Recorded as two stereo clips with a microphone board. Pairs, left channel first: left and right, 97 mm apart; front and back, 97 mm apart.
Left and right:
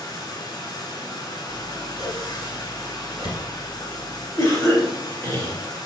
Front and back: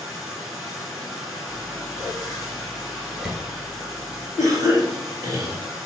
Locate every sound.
0.0 s running water: 95° left, 1.1 m
1.5 s scissors: 100° left, 1.2 m
4.4 s a cough: 140° left, 1.9 m